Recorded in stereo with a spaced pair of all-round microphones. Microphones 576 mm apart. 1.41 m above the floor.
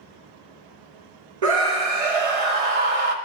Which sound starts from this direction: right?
A scream, at 1.4 s.